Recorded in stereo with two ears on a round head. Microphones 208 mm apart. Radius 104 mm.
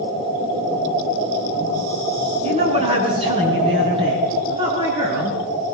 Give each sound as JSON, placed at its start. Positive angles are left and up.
{"t": 2.4, "sound": "a woman speaking", "side_deg": -25, "distance_m": 6.5}